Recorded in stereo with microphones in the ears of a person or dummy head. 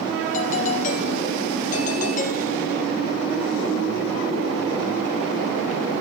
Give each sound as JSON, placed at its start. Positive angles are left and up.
{"t": 0.3, "sound": "a doorbell", "side_deg": 45, "distance_m": 2.0}